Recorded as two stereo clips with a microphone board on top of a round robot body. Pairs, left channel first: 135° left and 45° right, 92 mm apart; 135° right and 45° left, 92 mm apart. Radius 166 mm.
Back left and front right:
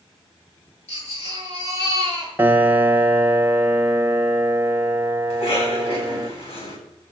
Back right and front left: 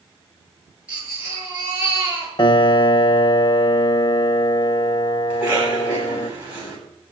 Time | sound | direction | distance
0.9 | a baby crying | 125° left | 8.5 m
2.4 | a piano | 110° right | 1.3 m
5.3 | a cough | 120° left | 9 m